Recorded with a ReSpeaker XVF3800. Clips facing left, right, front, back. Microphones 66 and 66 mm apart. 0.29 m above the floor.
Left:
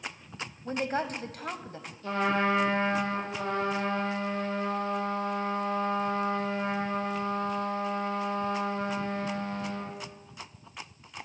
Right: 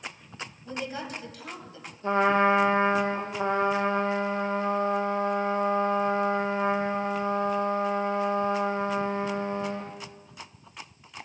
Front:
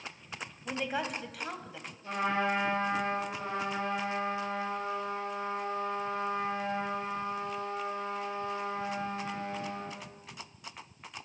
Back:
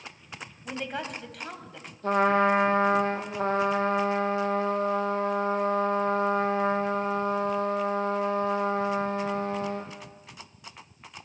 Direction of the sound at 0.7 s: 90° left.